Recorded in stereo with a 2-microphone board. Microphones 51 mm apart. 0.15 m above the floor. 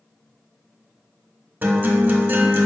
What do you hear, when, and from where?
1.6 s a guitar: 40° right (ahead or behind), 0.7 m